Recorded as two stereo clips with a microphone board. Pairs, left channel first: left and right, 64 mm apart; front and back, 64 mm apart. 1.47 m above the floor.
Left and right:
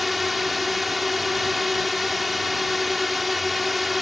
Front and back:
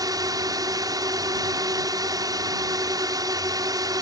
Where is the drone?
Straight behind.